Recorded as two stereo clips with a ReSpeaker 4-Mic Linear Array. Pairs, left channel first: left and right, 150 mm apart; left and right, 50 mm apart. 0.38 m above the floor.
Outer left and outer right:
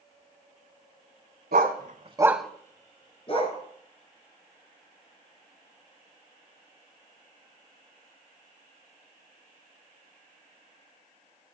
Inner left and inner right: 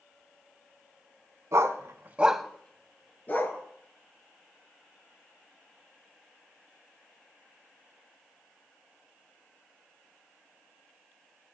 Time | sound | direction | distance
1.5 | a dog barking | 85° right | 1.1 m